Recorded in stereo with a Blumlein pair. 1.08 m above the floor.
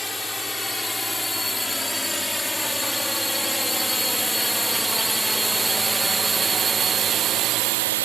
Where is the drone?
5° left; by 8.1 s 55° right.